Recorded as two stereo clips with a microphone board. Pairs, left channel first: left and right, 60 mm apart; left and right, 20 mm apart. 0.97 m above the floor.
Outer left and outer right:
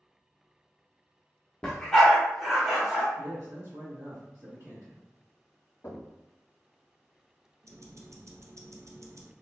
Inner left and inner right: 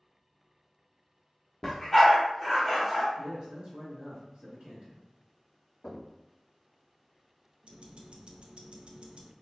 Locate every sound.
1.6 s a dog barking: 10° left (ahead or behind), 0.8 m; by 3.1 s 10° right (ahead or behind), 1.6 m
3.2 s a man speaking: 55° right (ahead or behind), 1.4 m
5.8 s knocking: 35° left (ahead or behind), 1.1 m
7.6 s ticking: 55° right (ahead or behind), 0.5 m